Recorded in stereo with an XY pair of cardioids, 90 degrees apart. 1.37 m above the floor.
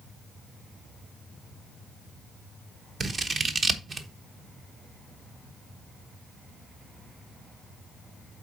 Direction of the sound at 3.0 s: 50° right.